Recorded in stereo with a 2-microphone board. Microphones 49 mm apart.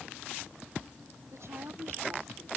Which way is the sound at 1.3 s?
80° right.